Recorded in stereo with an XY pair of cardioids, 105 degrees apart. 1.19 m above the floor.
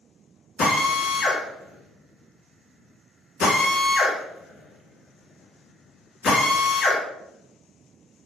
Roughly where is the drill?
Ahead left.